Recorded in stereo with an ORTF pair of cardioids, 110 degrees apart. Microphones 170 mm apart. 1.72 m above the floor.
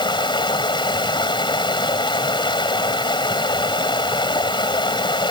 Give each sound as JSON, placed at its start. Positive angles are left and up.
{"t": 0.0, "sound": "running water", "azimuth_deg": 30}